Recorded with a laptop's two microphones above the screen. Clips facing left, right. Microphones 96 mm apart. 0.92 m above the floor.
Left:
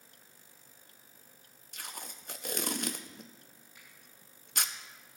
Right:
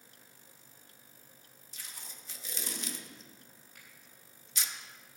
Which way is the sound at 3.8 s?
60° right (ahead or behind).